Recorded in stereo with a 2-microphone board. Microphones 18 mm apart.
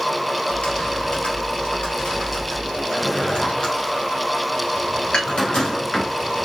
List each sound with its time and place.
0.5 s typing on a keyboard: 75° left (ahead or behind), 2.5 m
2.9 s a drawer: 60° left (ahead or behind), 4 m
5.1 s dishes clattering: 65° left (ahead or behind), 5 m